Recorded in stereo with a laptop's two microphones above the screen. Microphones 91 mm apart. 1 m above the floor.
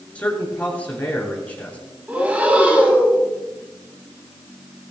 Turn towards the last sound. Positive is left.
turn(degrees=-15)  # may be behind; listen again after turning